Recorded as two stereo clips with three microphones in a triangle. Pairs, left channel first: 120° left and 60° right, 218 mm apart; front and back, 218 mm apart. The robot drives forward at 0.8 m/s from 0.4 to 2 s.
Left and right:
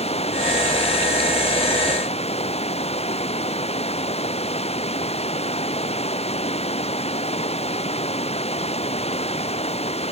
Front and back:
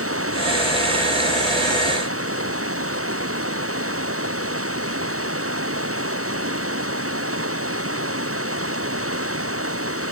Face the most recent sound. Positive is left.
turn(degrees=180)